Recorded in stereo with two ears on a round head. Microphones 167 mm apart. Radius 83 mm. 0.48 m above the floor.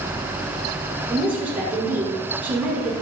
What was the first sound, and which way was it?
A woman speaking, 10° right (ahead or behind).